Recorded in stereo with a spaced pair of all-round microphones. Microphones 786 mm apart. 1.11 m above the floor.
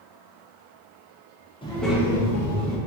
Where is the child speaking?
5° left (ahead or behind), 1.0 m; by 2.8 s 15° right (ahead or behind), 1.7 m.